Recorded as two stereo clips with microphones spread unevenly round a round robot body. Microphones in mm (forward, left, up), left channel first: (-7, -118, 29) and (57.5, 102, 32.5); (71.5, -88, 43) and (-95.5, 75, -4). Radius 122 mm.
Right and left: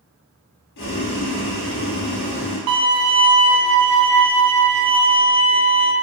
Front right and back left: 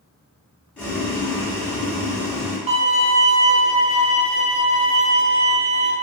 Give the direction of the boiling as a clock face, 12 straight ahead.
4 o'clock.